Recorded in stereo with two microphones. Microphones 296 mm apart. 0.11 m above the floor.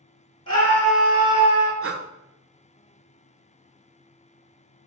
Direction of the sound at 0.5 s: 15° left (ahead or behind).